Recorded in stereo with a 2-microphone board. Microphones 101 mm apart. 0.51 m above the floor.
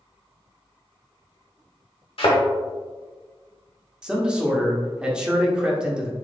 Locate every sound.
2.2 s a thud: 70° left (ahead or behind), 1.2 m
4.0 s a man speaking: 10° right (ahead or behind), 0.8 m